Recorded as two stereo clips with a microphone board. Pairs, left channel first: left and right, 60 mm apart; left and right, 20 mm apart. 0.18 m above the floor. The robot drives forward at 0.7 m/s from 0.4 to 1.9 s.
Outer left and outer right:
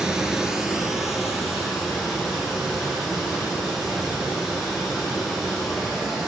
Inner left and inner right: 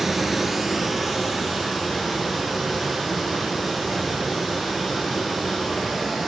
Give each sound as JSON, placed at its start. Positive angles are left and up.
{"t": 0.0, "sound": "running water", "side_deg": -10, "distance_m": 0.7}